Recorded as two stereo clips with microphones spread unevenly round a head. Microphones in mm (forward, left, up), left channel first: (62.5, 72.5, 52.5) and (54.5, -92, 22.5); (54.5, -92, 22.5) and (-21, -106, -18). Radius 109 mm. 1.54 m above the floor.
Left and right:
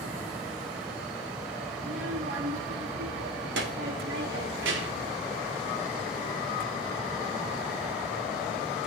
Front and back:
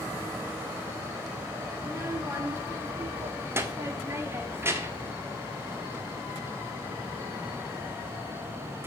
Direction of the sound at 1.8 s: 95° right.